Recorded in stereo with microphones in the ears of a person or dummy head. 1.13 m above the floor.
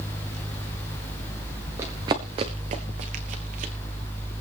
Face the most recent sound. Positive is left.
turn(degrees=-45)  # may be behind; listen again after turning